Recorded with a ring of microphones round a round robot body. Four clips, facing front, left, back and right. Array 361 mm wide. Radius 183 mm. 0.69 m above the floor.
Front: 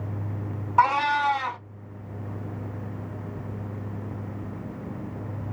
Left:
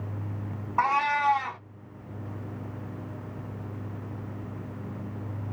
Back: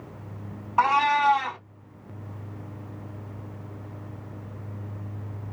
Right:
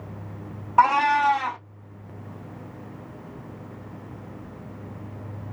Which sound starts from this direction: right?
A cat meowing, at 0.8 s.